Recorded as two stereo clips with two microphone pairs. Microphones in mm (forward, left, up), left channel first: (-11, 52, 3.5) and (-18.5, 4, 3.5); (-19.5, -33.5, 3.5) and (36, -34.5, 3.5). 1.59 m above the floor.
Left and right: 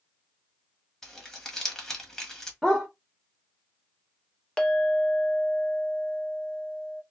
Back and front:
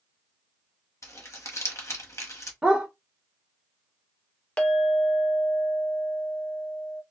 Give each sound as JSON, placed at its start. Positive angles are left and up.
{"t": 1.0, "sound": "crumpling", "azimuth_deg": 160, "distance_m": 1.1}
{"t": 2.6, "sound": "a dog barking", "azimuth_deg": -10, "distance_m": 1.1}
{"t": 4.6, "sound": "a clink", "azimuth_deg": 130, "distance_m": 0.6}